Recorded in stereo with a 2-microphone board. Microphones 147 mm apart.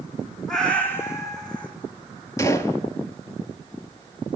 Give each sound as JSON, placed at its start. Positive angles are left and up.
{"t": 0.5, "sound": "a cat meowing", "side_deg": 0, "distance_m": 1.2}
{"t": 2.4, "sound": "a gunshot", "side_deg": 20, "distance_m": 0.6}